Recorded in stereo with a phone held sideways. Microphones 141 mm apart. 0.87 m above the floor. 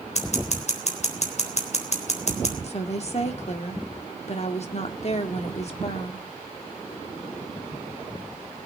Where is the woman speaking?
50° left (ahead or behind), 2.0 m.